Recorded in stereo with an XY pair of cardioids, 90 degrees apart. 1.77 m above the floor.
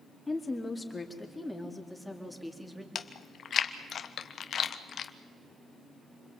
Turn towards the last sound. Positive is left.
turn(degrees=60)